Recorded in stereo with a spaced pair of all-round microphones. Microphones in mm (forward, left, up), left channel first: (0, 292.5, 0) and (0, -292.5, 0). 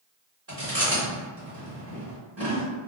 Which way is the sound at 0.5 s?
25° right (ahead or behind).